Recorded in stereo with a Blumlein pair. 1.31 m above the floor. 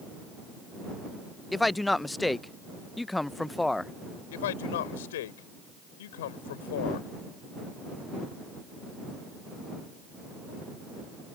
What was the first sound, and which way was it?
A man speaking, 5° left.